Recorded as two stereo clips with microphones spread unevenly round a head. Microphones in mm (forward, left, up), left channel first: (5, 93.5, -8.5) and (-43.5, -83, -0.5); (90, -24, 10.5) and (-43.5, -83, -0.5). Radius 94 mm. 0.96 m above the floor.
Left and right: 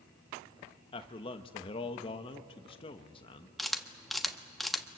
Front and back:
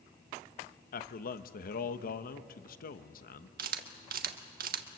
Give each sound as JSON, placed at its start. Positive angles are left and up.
{"t": 0.9, "sound": "a man speaking", "azimuth_deg": 15, "distance_m": 1.1}
{"t": 3.6, "sound": "a camera shutter", "azimuth_deg": 165, "distance_m": 1.2}